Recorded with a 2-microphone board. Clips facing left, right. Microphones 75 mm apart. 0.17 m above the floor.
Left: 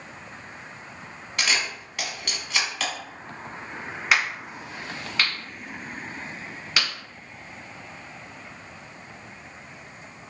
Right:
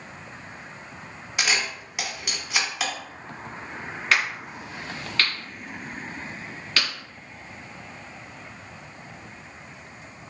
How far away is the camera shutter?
About 1.0 m.